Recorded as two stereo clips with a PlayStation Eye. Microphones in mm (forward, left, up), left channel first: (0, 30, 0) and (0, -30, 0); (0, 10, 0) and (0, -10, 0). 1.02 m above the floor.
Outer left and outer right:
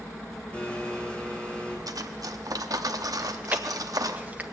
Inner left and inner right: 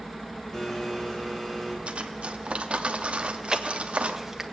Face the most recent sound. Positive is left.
turn(degrees=-25)  # may be behind; listen again after turning